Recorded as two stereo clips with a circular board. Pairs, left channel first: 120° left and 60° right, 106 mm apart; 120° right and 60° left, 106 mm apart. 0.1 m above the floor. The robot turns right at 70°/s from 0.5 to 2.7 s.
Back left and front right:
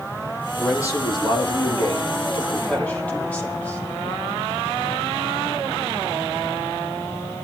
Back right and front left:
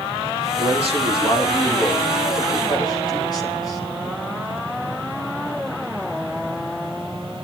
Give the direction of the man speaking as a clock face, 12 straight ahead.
10 o'clock.